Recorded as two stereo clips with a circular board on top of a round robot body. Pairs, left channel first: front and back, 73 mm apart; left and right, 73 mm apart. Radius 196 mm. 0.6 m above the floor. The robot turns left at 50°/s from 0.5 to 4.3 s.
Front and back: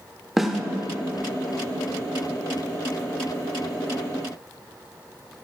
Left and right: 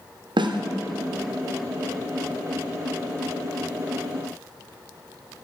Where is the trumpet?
I don't hear a trumpet.